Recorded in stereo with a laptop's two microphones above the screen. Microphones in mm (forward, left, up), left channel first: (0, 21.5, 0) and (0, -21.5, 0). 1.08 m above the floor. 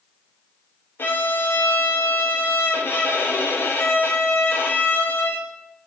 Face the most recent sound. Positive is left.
turn(degrees=55)  # may be behind; listen again after turning